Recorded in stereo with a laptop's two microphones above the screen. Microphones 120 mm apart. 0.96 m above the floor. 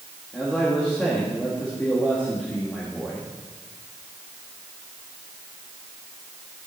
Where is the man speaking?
10° left (ahead or behind), 1.7 m.